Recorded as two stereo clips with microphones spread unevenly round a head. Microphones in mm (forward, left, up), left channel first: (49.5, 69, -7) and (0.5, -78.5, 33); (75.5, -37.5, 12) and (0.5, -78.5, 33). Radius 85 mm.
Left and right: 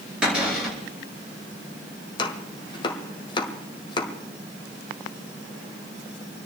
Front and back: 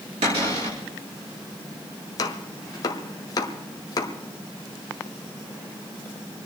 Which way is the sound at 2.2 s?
10° left.